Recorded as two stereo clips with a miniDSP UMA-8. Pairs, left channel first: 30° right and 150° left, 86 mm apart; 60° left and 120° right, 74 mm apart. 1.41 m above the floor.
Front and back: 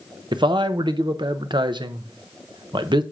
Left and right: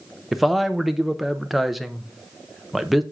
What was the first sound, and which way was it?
A man speaking, 150° left.